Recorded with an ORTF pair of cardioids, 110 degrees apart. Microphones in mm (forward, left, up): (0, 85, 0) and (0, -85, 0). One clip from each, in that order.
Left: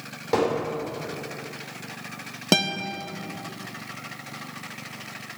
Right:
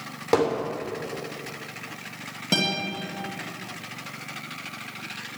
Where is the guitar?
60° left, 1.9 m.